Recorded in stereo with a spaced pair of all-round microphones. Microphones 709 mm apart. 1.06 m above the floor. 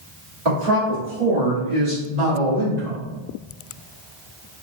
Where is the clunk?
No clunk in this recording.